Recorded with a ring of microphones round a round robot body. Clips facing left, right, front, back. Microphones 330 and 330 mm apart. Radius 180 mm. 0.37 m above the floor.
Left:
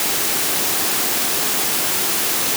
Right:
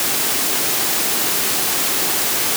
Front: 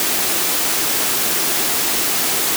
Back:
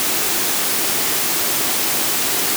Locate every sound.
Only background noise.